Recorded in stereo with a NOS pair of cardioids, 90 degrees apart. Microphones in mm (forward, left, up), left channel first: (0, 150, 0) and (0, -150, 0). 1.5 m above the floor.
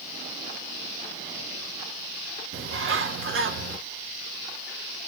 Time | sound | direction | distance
2.5 | a bird | 40° right | 1.7 m